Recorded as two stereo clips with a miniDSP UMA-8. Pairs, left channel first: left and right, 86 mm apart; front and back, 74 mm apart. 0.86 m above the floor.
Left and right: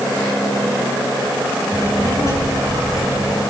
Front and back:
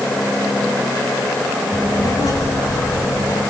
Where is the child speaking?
40° left, 6.5 m.